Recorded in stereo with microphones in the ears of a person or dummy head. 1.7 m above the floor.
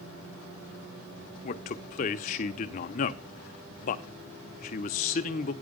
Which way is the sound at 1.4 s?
35° left (ahead or behind).